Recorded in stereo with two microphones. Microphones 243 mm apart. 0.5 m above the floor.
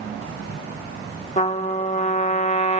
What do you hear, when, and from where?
1.4 s a trumpet: 30° left (ahead or behind), 0.6 m